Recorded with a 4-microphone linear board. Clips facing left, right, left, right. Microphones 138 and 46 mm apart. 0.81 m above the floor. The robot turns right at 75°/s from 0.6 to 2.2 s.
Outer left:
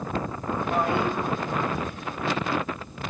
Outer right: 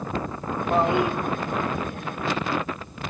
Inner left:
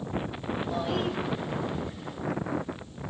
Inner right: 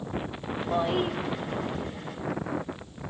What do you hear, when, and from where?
0.7 s a toilet flushing: 45° right, 0.5 m; by 1.2 s 10° right, 0.5 m